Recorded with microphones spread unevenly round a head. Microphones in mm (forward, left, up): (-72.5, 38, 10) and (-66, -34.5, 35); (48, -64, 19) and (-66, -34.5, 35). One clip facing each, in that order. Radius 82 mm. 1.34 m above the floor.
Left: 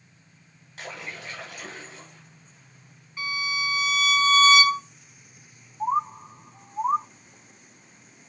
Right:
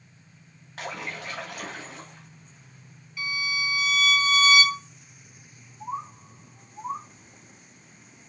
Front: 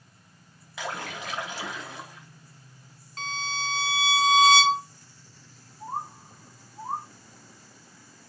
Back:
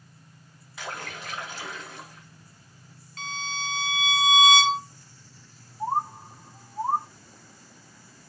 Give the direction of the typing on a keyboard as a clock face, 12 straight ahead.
I don't hear typing on a keyboard.